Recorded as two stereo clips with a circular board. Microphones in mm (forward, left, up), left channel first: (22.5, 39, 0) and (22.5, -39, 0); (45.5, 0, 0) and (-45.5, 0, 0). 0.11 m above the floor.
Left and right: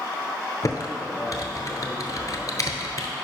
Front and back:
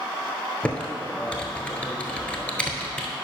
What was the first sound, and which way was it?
Typing on a keyboard, 70° left.